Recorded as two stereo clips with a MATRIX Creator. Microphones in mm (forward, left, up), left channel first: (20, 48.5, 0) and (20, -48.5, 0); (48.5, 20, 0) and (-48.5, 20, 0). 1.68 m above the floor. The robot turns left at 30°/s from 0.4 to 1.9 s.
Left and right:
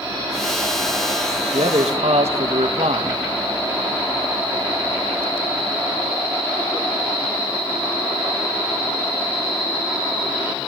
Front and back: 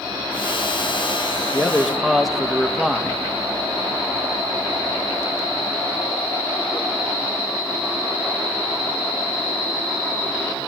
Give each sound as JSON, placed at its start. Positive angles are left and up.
{"t": 1.5, "sound": "a man speaking", "azimuth_deg": -80, "distance_m": 2.5}